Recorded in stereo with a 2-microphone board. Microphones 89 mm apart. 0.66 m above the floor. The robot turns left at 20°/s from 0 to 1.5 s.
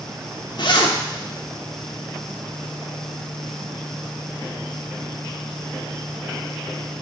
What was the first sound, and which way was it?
A zipper, 55° left (ahead or behind).